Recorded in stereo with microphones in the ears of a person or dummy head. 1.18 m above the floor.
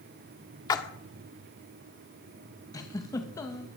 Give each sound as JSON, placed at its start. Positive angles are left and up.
{"t": 0.7, "sound": "a splash", "side_deg": 25, "distance_m": 1.4}
{"t": 2.7, "sound": "a giggle", "side_deg": 20, "distance_m": 1.6}